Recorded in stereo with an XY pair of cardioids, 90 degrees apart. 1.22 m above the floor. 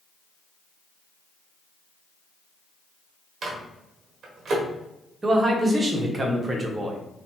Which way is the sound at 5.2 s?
30° right.